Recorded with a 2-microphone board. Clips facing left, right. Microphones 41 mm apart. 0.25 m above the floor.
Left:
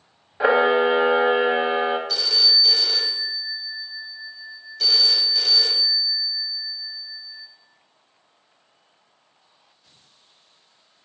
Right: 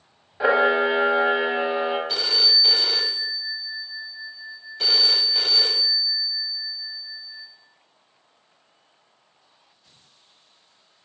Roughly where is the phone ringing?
Right.